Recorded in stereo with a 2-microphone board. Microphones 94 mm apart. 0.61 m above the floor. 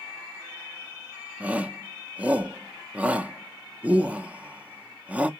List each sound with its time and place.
1.4 s a shout: 15° right (ahead or behind), 0.5 m